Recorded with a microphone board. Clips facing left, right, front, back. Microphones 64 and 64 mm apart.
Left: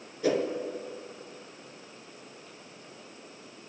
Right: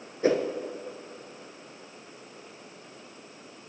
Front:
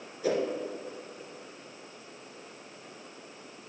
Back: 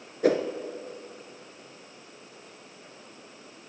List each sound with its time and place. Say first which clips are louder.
0.2 s a whoosh: right 2 dB, back 5 dB; 145° right, 0.7 m